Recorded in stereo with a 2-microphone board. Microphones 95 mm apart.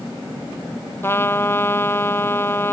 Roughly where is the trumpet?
Left.